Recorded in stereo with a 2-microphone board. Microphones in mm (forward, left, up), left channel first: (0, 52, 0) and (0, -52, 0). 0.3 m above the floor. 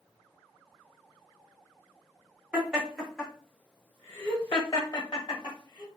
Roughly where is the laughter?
Centre.